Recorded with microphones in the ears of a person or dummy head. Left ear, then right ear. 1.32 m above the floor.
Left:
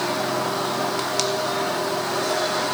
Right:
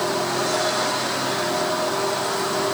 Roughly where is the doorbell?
No doorbell in this recording.